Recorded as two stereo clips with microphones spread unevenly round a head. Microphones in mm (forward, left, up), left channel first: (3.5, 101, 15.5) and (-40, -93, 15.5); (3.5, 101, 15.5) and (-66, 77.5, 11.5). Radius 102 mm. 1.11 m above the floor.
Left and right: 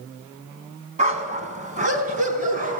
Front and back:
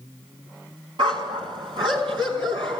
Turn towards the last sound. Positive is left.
turn(degrees=-155)